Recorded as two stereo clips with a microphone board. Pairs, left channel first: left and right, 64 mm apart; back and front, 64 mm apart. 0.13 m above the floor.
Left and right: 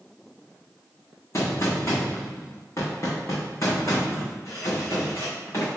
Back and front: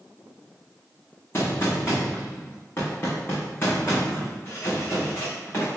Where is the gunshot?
130° left, 2.5 m.